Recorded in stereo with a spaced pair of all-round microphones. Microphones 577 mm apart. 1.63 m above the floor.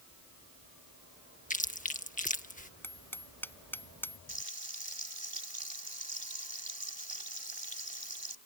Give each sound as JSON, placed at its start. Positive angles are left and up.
{"t": 1.5, "sound": "chewing", "side_deg": 15}
{"t": 2.8, "sound": "hammering", "side_deg": 5}
{"t": 4.3, "sound": "frying", "side_deg": -45}